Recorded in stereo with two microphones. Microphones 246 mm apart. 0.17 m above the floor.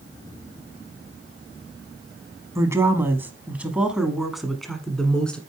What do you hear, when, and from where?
2.5 s a woman speaking: 10° right (ahead or behind), 1.0 m; by 5.4 s 5° left (ahead or behind), 1.5 m